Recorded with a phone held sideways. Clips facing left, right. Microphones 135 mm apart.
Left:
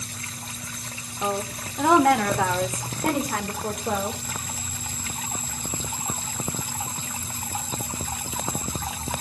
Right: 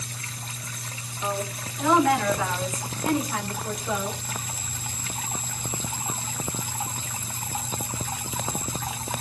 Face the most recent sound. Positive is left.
turn(degrees=60)  # may be behind; listen again after turning